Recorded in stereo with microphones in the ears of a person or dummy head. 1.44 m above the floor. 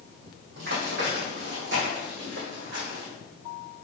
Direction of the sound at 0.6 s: 65° right (ahead or behind).